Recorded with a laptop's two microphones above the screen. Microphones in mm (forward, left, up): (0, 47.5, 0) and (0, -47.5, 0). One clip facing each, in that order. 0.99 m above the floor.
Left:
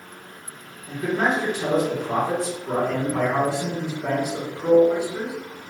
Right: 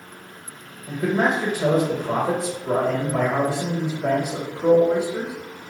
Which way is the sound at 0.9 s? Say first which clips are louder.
Right 2 dB; 55° right (ahead or behind).